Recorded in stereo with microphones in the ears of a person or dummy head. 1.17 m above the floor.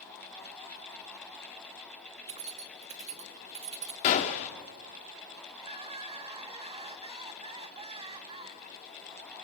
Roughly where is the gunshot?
Left.